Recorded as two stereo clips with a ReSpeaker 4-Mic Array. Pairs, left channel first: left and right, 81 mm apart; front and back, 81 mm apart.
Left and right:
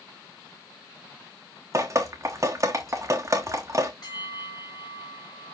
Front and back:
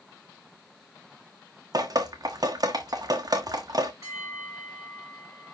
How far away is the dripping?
About 1.5 m.